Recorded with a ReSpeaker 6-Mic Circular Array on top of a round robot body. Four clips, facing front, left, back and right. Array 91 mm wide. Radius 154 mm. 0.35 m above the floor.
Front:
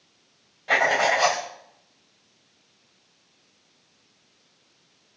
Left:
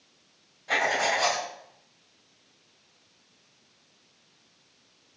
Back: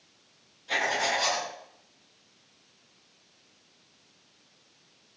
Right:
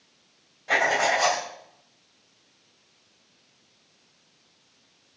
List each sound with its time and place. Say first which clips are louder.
0.7 s writing: right 3 dB, front 7 dB; 20° right, 3.5 m